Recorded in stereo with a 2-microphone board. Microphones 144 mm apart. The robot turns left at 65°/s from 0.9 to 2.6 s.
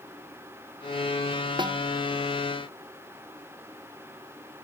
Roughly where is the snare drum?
Right.